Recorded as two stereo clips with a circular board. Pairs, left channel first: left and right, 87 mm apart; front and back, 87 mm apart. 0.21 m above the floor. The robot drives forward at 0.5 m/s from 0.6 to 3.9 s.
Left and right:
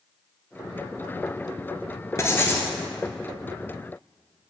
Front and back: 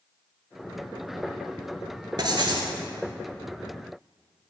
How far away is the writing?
About 0.6 m.